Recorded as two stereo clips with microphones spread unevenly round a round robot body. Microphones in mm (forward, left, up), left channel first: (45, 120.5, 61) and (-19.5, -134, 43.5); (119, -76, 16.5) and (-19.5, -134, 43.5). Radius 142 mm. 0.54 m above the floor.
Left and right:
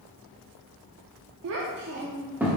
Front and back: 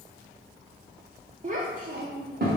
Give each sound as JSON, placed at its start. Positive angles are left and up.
{"t": 1.4, "sound": "a child speaking", "azimuth_deg": -115, "distance_m": 0.6}